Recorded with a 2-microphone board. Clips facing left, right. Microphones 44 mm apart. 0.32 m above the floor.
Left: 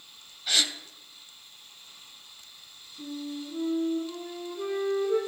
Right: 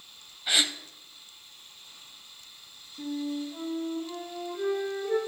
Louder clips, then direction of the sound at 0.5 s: Right 1 dB; 15° right (ahead or behind).